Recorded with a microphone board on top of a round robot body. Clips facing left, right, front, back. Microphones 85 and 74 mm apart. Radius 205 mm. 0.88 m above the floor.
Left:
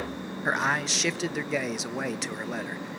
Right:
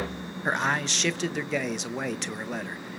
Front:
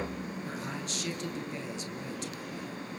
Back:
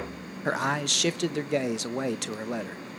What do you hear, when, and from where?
0.5 s a man speaking: 175° left, 1.4 m